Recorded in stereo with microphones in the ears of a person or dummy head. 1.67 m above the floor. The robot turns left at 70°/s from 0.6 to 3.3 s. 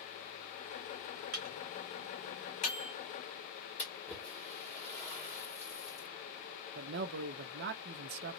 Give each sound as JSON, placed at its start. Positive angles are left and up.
{"t": 1.3, "sound": "a microwave", "side_deg": -40, "distance_m": 1.2}
{"t": 3.8, "sound": "a splash", "side_deg": 5, "distance_m": 1.8}
{"t": 6.8, "sound": "a man speaking", "side_deg": -60, "distance_m": 0.5}